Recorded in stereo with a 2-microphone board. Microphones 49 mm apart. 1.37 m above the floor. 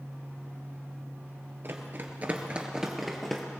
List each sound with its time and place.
1.6 s running footsteps: 50° right (ahead or behind), 1.9 m; by 3.4 s 10° left (ahead or behind), 2 m